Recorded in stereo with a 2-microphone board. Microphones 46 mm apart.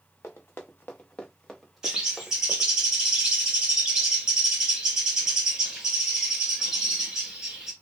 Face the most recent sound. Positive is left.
turn(degrees=-15)  # may be behind; listen again after turning